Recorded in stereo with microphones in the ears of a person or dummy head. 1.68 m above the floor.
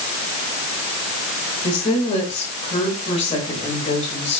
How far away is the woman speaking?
About 7.5 m.